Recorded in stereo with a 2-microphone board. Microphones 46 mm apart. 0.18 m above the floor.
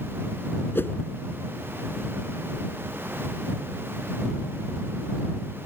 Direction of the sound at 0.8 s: 55° left (ahead or behind).